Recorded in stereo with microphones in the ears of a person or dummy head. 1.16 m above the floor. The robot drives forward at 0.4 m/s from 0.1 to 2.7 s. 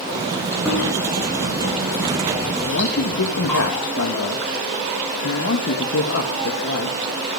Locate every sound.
0.7 s chewing: 10° left (ahead or behind), 6.5 m; by 3.6 s 5° left (ahead or behind), 7 m
2.6 s a man speaking: 75° left (ahead or behind), 1.5 m; by 7.0 s 70° left (ahead or behind), 1.5 m